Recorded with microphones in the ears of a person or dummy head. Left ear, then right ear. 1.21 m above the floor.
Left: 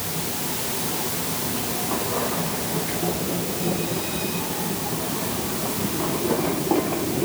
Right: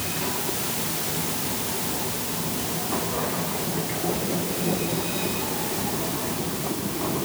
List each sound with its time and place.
Only background noise.